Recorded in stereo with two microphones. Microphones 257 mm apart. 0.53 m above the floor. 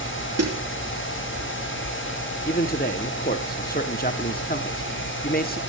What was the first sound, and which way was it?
A snare drum, 75° right (ahead or behind).